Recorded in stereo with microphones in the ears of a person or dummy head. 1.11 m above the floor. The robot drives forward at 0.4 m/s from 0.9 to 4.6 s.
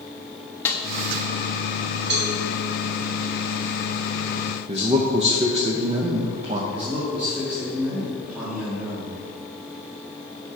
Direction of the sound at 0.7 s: 10° left (ahead or behind).